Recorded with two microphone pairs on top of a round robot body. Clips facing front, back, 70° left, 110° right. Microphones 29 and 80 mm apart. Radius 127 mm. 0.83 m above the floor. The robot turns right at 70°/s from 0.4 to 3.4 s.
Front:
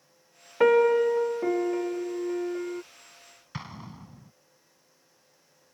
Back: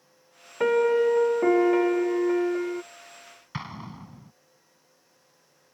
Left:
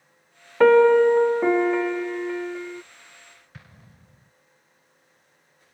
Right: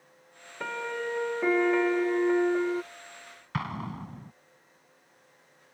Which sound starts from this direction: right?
An explosion, at 3.5 s.